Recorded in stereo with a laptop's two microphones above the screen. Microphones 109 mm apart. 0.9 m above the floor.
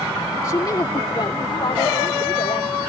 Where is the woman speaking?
35° left (ahead or behind); by 2.8 s 60° left (ahead or behind).